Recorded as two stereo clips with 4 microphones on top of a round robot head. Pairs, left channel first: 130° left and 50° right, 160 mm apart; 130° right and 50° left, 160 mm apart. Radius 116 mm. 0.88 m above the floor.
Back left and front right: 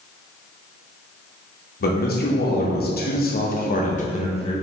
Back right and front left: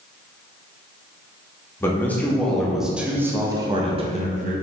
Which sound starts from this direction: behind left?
A man speaking, at 1.8 s.